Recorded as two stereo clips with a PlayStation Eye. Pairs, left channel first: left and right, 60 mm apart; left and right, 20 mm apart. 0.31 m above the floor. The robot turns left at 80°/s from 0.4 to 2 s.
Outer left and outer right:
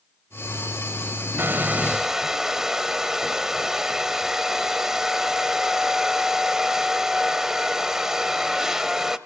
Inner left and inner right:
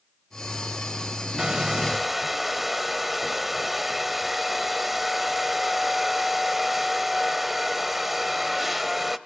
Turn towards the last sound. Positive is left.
turn(degrees=-170)